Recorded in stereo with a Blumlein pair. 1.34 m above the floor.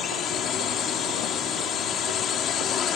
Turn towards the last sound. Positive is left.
turn(degrees=25)